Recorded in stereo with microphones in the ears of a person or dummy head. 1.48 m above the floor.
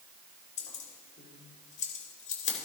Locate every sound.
0.6 s keys jangling: 45° left (ahead or behind), 3.5 m